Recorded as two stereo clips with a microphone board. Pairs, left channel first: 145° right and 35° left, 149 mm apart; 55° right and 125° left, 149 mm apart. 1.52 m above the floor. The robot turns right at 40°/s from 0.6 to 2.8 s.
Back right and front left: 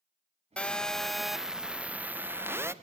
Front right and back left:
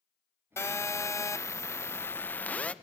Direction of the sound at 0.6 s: 80° right.